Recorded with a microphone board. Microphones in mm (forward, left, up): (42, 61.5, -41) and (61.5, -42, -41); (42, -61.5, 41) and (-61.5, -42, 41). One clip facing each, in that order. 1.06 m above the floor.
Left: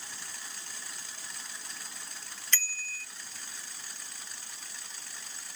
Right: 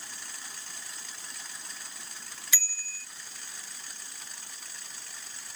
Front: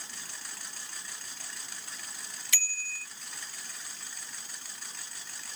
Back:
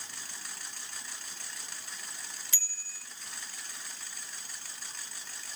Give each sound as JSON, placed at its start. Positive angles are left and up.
{"t": 2.5, "sound": "a bicycle bell", "azimuth_deg": 5}